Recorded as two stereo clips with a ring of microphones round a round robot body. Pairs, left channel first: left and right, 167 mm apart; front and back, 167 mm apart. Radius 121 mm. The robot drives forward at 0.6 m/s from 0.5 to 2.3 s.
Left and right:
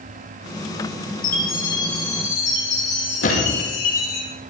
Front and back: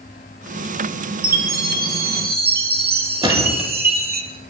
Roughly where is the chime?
Behind left.